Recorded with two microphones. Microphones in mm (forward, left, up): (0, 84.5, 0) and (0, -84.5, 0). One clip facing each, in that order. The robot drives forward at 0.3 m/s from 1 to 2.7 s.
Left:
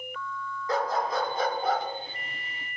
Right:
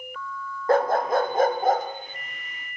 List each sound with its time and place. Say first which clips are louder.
0.7 s a dog barking: right 7 dB; 60° right (ahead or behind), 0.7 m; by 1.9 s 45° right (ahead or behind), 0.8 m